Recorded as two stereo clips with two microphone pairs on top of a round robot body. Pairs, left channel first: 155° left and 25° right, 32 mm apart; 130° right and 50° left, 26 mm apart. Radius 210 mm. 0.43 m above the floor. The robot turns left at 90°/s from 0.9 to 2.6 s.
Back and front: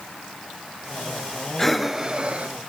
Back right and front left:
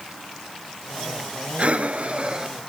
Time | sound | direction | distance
1.6 | breathing | 75° left | 1.7 m